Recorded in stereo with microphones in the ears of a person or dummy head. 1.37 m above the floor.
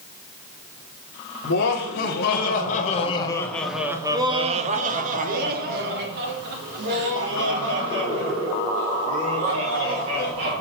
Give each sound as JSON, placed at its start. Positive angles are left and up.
{"t": 1.4, "sound": "laughter", "side_deg": 65, "distance_m": 1.4}